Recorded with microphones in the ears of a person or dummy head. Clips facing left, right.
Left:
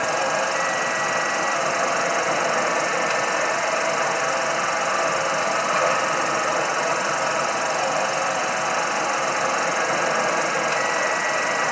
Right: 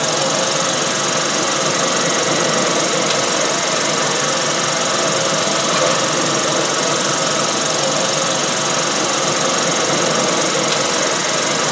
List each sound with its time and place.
0.0 s an insect: 55° right (ahead or behind)